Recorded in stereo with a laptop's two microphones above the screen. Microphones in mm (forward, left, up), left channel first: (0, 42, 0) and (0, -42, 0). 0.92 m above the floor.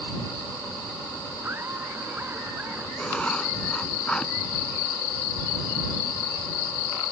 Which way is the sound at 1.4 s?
25° right (ahead or behind).